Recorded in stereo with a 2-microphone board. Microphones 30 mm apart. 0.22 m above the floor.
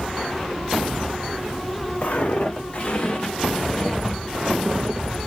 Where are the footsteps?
50° left (ahead or behind), 1.6 m; by 5.3 s 35° right (ahead or behind), 1.4 m.